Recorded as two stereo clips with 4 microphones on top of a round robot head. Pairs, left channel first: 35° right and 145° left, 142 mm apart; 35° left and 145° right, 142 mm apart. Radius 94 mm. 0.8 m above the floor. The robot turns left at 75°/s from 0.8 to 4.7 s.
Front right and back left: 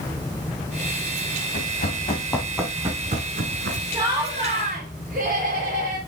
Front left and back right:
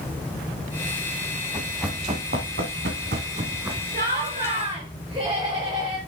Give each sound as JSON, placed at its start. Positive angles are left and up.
{"t": 1.5, "sound": "running footsteps", "azimuth_deg": -35, "distance_m": 3.0}
{"t": 3.9, "sound": "laughter", "azimuth_deg": -150, "distance_m": 2.0}